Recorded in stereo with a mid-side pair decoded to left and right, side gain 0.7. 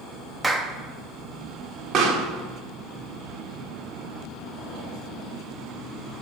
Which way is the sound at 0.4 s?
10° right.